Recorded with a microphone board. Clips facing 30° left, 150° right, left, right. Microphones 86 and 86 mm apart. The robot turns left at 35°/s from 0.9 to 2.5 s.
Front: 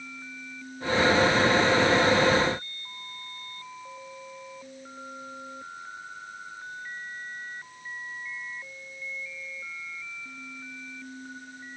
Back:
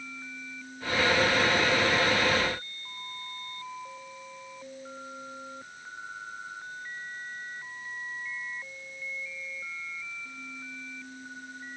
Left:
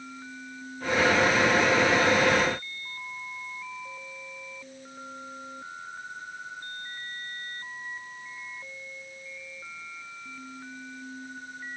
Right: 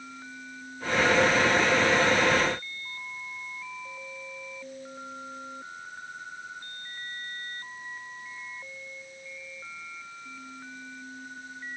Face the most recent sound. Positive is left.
No sound to turn to.